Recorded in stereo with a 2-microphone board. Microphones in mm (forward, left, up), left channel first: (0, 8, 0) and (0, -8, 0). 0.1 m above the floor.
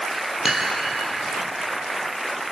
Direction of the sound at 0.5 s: 15° right (ahead or behind).